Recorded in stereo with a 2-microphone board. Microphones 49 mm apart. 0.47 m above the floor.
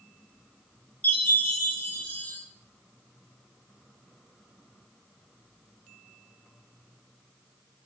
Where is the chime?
30° left (ahead or behind), 3 m.